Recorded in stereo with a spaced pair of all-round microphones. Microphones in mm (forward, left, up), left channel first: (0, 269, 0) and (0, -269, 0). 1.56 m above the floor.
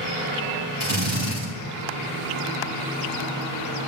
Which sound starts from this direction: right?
A drill, at 0.8 s.